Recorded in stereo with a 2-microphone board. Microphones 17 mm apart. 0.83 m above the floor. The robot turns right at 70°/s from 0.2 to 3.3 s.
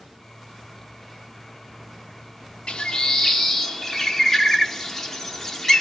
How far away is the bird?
About 0.7 m.